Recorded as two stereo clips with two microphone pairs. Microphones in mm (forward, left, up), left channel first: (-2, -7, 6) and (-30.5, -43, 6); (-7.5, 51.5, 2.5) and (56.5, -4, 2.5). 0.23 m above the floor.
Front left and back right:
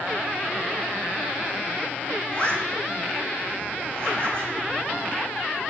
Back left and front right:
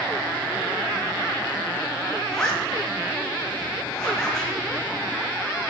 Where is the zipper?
65° left, 1.3 m.